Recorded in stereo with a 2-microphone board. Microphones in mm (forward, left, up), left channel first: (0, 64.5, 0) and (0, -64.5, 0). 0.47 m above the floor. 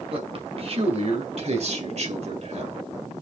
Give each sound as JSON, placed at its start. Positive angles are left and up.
{"t": 0.1, "sound": "a man speaking", "side_deg": -50, "distance_m": 2.5}